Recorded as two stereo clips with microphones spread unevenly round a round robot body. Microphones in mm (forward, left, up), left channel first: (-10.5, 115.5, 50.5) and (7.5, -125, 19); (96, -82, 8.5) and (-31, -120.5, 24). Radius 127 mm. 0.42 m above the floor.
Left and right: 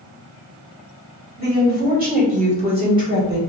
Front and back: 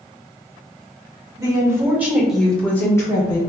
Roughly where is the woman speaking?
Right.